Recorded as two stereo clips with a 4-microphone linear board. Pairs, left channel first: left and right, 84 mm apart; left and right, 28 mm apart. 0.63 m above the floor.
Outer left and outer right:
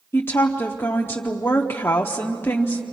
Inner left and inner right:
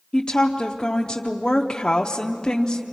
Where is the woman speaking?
25° left (ahead or behind), 0.9 m.